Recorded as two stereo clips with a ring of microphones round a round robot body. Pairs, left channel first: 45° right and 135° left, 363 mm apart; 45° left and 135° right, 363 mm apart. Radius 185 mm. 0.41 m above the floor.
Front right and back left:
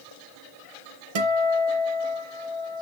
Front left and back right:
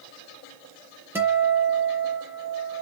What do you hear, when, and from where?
1.1 s a guitar: 140° left, 5.5 m